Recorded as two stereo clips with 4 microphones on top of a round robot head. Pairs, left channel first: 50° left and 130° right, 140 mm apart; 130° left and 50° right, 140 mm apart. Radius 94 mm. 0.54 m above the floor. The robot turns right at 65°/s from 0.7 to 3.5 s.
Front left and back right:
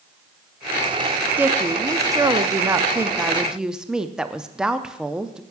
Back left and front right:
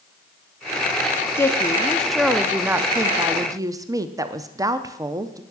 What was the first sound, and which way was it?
A woman speaking, 170° left.